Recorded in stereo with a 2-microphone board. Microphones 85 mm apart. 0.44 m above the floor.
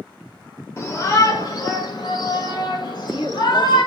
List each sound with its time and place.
0.8 s a shout: 35° left (ahead or behind), 1.3 m; by 3.8 s 55° left (ahead or behind), 3.5 m
2.8 s a woman speaking: 75° left (ahead or behind), 5.5 m